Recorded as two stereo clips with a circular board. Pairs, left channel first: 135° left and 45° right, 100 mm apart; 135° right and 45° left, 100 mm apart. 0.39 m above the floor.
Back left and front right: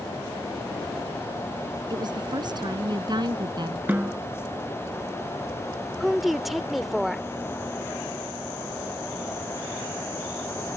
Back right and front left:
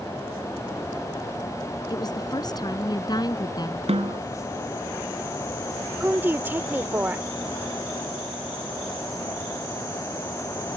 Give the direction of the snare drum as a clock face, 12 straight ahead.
11 o'clock.